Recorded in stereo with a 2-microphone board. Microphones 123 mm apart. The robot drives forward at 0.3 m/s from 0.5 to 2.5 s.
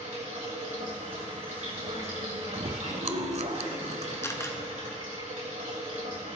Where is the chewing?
65° right (ahead or behind), 0.6 m.